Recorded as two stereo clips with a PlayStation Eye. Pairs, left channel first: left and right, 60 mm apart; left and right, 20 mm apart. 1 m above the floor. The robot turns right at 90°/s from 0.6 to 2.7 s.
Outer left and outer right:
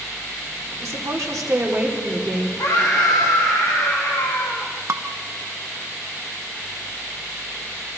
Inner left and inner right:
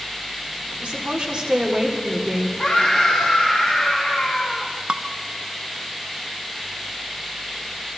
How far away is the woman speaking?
About 3.5 m.